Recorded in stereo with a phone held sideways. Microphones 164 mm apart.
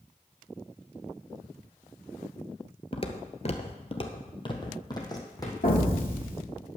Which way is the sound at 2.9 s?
40° left (ahead or behind).